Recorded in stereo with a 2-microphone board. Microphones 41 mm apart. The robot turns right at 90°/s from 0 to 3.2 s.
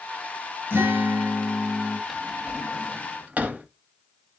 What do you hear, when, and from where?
0.7 s a guitar: 80° right, 1.7 m; by 2.0 s 35° left, 1.7 m
2.1 s a drawer: centre (ahead or behind), 0.6 m; by 3.6 s 40° right (ahead or behind), 0.6 m